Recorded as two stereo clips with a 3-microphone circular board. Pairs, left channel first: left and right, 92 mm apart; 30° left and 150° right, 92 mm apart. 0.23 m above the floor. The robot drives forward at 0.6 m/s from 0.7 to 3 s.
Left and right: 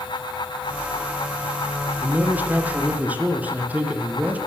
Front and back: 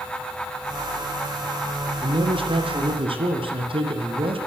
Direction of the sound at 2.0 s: 160° right.